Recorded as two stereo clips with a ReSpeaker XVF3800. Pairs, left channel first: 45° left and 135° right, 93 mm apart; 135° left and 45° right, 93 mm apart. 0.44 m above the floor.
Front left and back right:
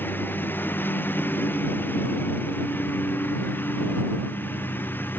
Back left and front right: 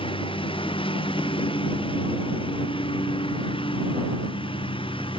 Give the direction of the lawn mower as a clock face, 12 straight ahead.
8 o'clock.